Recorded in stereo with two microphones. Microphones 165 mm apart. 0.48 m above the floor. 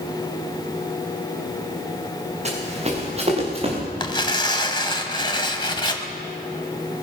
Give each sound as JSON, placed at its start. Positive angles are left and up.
{"t": 2.5, "sound": "running footsteps", "side_deg": -40, "distance_m": 5.0}
{"t": 4.0, "sound": "tearing paper", "side_deg": 30, "distance_m": 1.3}